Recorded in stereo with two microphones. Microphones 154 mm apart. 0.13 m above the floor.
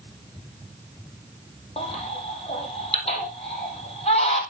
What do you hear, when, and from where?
1.8 s a baby crying: 45° left (ahead or behind), 3 m